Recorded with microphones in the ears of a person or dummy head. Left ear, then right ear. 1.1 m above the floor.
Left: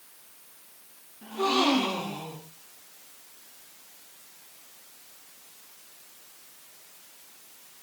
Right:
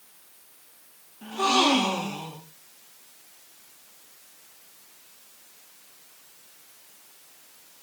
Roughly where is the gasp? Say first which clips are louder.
Right 3 dB; right.